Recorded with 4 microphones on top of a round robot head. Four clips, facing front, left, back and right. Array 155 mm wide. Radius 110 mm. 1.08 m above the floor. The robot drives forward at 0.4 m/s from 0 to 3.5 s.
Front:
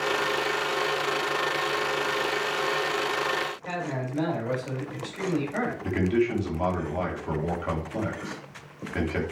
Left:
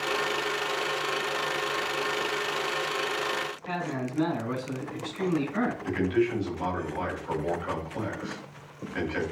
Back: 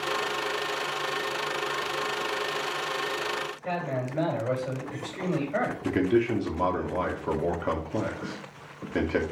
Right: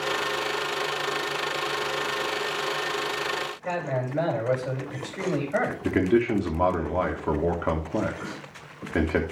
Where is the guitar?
No guitar in this recording.